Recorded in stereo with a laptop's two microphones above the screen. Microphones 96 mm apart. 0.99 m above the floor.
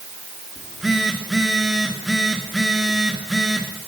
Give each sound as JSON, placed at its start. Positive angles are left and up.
{"t": 0.6, "sound": "a phone buzzing", "side_deg": -5, "distance_m": 2.5}